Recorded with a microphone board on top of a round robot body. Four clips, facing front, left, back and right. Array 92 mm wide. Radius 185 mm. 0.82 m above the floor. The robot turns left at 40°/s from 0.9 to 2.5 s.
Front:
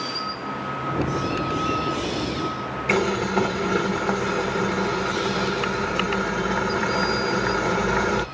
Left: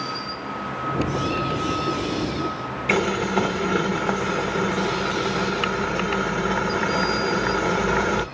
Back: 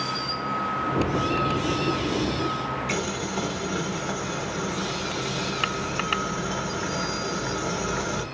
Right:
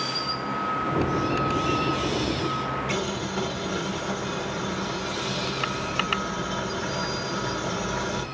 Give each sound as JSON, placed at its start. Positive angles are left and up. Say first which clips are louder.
{"t": 2.9, "sound": "boiling", "louder": "left 7 dB, front 7 dB", "azimuth_deg": 50, "distance_m": 1.0}